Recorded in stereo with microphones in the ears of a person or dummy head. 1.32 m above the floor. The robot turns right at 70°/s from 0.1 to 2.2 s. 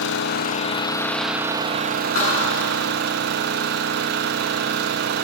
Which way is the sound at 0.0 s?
100° left.